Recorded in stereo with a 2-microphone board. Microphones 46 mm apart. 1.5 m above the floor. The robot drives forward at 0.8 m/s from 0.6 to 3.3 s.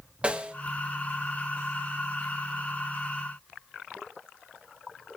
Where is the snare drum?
25° right (ahead or behind), 1.0 m.